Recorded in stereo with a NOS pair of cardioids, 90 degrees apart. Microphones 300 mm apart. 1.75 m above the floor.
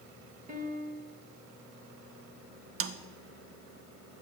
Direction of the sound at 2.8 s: 50° right.